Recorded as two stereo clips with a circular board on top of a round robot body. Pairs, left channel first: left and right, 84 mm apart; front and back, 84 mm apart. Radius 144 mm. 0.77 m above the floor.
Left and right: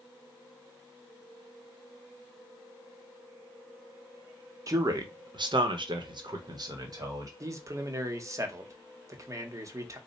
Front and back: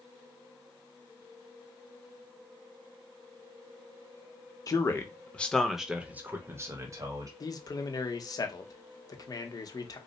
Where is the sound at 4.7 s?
45° right, 0.9 m; by 7.3 s 135° right, 1.3 m.